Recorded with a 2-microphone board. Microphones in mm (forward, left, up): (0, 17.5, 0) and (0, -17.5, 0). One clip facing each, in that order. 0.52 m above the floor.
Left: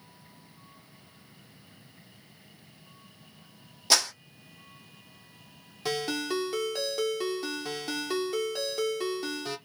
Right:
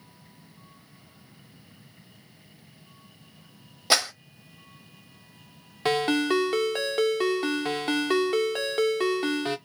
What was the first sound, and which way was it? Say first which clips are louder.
A clap: right 2 dB; 25° right (ahead or behind).